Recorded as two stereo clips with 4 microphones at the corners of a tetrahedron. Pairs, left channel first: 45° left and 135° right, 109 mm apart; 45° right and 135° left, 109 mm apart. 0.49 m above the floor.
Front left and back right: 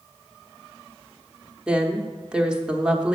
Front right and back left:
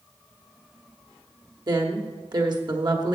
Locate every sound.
1.7 s a woman speaking: 150° left, 1.1 m